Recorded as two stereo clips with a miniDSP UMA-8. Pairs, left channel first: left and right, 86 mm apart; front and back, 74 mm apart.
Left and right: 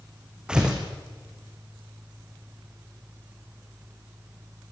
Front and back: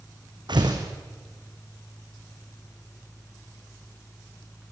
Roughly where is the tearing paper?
Behind.